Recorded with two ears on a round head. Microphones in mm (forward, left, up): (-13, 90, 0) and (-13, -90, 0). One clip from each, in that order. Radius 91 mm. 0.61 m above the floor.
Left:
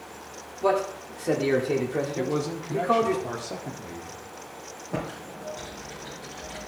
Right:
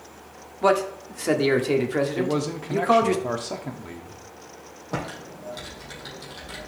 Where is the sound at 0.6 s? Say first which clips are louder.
Right 3 dB; 40° right (ahead or behind), 1.6 m.